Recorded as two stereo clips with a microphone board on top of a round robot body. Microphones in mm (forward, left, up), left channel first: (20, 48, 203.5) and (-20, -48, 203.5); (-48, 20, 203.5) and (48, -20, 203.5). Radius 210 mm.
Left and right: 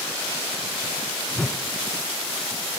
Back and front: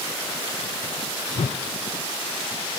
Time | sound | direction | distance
1.4 | a whoosh | 145° left | 0.6 m